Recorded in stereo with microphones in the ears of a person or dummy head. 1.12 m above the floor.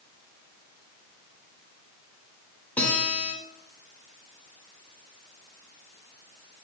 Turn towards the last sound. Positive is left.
turn(degrees=10)  # may be behind; listen again after turning